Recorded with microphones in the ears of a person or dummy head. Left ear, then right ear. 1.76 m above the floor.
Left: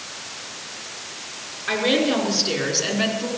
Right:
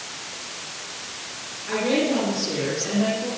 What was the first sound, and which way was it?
A woman speaking, 75° left (ahead or behind).